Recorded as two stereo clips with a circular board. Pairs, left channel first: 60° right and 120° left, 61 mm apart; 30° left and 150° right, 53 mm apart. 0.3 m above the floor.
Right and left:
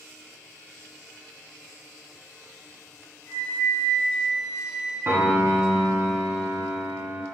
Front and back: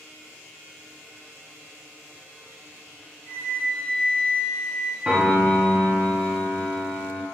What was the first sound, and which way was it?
A flute, 25° right.